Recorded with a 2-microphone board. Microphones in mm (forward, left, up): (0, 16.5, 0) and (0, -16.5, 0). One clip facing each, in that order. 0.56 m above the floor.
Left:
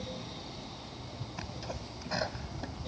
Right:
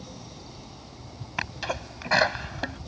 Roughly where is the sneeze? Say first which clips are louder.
Right 13 dB; right.